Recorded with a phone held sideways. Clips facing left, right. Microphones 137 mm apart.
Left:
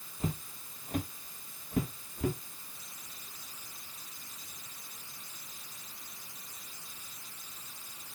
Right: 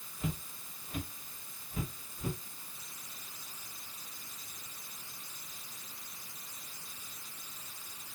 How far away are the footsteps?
About 1.4 m.